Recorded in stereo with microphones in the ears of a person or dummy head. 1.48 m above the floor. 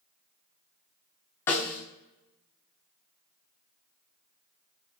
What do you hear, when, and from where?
1.5 s a snare drum: 15° left (ahead or behind), 1.1 m